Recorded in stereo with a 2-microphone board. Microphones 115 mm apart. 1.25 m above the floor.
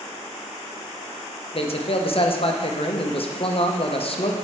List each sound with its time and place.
1.5 s a man speaking: 50° left (ahead or behind), 0.8 m